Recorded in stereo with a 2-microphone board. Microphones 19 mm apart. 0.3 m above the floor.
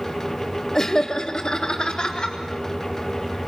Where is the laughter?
25° left (ahead or behind), 0.9 m; by 2.4 s 55° left (ahead or behind), 1.4 m.